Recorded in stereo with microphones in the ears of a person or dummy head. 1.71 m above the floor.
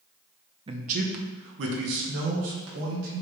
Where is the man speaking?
30° right (ahead or behind), 0.9 m; by 3.2 s 80° right, 3 m.